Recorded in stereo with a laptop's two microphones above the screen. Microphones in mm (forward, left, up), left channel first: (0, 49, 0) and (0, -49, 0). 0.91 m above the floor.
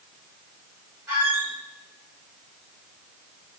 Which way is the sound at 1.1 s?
25° right (ahead or behind).